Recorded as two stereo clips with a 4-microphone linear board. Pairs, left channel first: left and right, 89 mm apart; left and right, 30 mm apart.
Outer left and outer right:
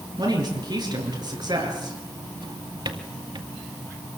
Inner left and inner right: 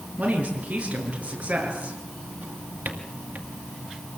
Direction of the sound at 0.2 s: 55° right (ahead or behind).